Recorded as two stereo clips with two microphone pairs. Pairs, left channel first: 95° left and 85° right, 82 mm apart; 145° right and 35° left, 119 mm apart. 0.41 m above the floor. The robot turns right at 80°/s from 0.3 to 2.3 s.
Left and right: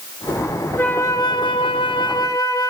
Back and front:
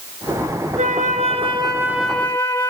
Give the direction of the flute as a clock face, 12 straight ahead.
11 o'clock.